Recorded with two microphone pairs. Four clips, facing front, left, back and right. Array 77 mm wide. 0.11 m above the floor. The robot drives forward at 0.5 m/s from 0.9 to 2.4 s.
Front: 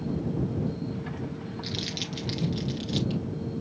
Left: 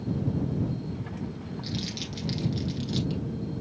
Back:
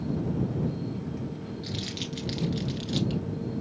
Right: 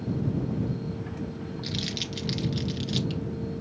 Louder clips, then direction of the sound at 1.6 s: Even, even; 50° right.